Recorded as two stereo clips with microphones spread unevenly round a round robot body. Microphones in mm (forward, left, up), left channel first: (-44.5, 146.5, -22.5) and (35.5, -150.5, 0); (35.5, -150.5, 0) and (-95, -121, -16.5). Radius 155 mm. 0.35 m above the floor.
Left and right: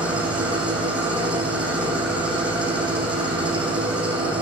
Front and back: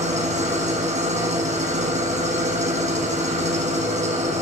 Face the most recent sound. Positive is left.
turn(degrees=-160)